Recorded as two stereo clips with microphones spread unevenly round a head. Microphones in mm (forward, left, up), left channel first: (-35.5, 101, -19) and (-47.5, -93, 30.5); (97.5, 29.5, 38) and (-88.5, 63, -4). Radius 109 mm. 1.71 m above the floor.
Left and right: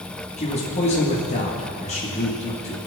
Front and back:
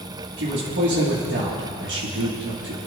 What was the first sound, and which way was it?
A man speaking, 145° left.